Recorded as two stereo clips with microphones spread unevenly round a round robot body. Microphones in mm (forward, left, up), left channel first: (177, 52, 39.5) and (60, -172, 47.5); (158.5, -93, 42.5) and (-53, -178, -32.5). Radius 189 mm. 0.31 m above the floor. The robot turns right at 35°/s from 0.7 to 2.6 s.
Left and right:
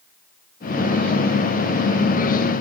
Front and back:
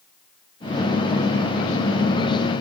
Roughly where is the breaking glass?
I don't hear breaking glass.